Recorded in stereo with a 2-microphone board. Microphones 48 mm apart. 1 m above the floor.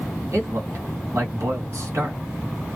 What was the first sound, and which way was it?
A man speaking, 65° right (ahead or behind).